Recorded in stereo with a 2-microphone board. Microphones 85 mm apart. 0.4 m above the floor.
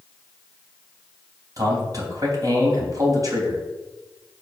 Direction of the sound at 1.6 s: 45° right (ahead or behind).